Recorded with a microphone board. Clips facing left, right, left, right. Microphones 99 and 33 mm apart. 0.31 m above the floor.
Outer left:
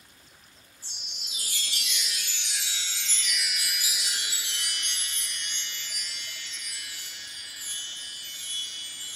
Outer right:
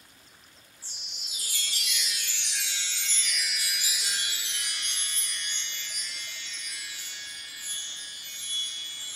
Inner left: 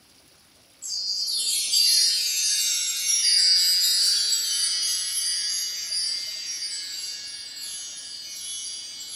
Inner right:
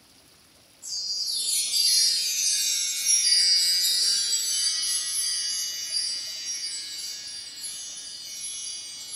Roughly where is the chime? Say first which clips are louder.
Outer left 2 dB, inner left 2 dB; left.